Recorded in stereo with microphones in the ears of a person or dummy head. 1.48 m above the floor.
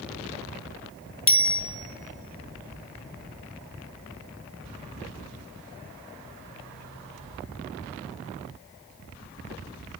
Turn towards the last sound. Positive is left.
turn(degrees=10)  # may be behind; listen again after turning